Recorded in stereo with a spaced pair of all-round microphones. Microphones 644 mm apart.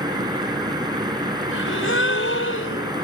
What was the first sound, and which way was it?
A fan, 5° right (ahead or behind).